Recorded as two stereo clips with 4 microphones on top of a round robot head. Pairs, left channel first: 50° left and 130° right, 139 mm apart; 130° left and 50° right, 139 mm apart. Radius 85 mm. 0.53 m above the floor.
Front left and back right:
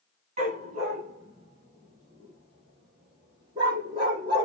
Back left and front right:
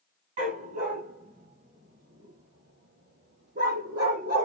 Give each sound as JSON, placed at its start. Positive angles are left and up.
{"t": 0.4, "sound": "a dog barking", "azimuth_deg": -85, "distance_m": 4.5}